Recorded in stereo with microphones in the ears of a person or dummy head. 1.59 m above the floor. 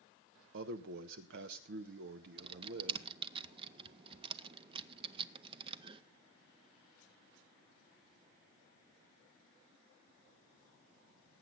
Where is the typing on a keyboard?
30° right (ahead or behind), 0.5 m.